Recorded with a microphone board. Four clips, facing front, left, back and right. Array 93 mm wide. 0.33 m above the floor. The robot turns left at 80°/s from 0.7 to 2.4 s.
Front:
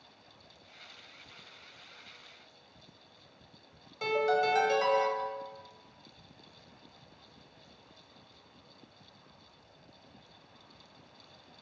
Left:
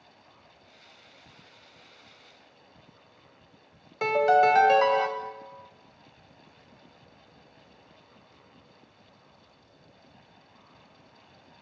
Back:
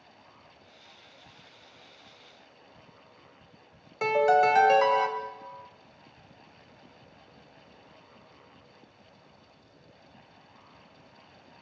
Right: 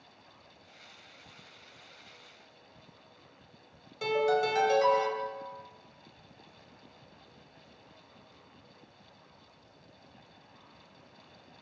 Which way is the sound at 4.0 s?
125° left.